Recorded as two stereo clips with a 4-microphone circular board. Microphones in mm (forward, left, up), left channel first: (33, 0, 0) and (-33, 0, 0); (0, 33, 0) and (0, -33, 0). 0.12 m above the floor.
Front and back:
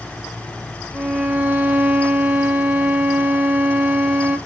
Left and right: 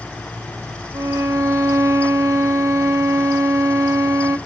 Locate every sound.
0.9 s a violin: 120° right, 1.3 m